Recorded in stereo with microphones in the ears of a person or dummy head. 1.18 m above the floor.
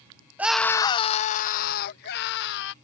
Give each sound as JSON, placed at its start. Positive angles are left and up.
{"t": 0.4, "sound": "a scream", "side_deg": -10}